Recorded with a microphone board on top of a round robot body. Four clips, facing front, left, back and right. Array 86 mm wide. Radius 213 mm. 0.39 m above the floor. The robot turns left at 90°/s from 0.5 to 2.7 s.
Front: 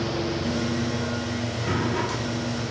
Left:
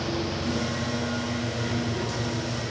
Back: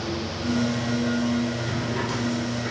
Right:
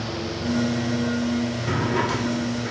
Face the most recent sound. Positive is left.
turn(degrees=-145)